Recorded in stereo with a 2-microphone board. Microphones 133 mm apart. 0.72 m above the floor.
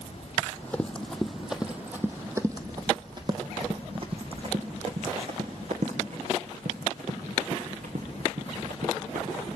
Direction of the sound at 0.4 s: 15° left (ahead or behind).